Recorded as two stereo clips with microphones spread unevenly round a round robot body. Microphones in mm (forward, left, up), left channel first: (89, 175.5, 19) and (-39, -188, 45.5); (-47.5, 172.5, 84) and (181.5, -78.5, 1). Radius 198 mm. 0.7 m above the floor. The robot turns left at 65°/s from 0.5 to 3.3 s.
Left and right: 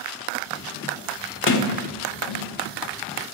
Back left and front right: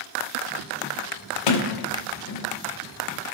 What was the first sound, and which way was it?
A sliding door, 130° left.